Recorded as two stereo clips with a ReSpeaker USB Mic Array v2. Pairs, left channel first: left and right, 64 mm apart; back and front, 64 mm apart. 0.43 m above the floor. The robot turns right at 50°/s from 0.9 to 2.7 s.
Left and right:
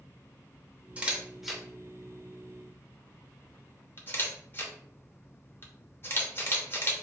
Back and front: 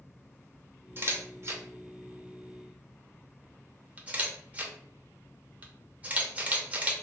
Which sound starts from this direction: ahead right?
A camera shutter, at 1.0 s.